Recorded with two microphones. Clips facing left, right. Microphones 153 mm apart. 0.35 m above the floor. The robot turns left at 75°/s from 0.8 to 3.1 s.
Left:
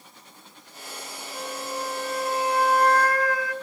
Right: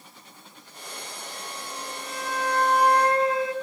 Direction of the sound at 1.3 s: 105° left.